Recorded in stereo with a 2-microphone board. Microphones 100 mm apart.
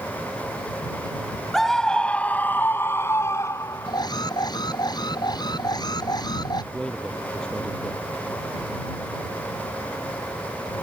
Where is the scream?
Centre (ahead or behind); by 4.0 s 30° left (ahead or behind).